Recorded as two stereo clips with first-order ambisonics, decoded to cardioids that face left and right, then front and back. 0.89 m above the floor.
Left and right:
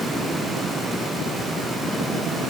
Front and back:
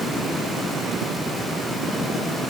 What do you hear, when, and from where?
Only background noise.